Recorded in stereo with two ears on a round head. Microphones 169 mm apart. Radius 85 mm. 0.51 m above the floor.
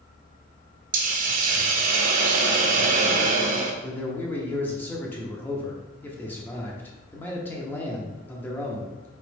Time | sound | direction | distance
0.9 | a hiss | 45° right (ahead or behind) | 0.5 m
3.8 | a man speaking | 10° left (ahead or behind) | 0.7 m